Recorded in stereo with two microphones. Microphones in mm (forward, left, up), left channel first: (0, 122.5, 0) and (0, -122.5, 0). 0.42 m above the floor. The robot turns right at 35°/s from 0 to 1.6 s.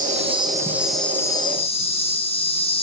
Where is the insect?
35° right, 1.8 m; by 2.8 s 25° left, 1.8 m.